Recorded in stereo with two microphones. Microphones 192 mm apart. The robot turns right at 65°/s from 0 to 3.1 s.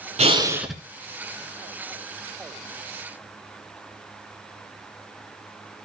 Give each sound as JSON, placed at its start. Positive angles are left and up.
{"t": 0.2, "sound": "breathing", "azimuth_deg": -35, "distance_m": 1.0}